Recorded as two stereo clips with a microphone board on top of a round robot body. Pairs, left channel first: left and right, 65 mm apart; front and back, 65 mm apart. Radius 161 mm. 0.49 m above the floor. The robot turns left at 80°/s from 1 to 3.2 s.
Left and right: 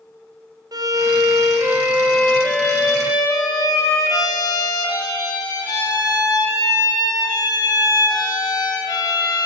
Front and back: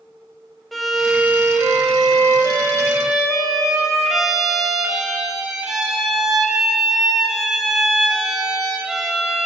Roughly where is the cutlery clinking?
I don't hear cutlery clinking.